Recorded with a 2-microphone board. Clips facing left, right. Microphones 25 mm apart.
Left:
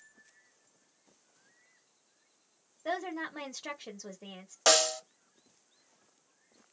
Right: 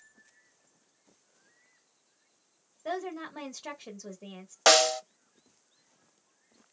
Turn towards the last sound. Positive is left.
turn(degrees=-30)  # may be behind; listen again after turning